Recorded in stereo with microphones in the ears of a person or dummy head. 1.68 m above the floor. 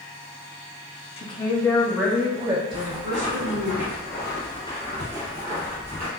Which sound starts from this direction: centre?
Footsteps, at 2.7 s.